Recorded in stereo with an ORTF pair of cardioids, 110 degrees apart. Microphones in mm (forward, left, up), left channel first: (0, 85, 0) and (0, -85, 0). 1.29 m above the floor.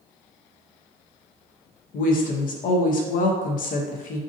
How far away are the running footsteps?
No running footsteps in this recording.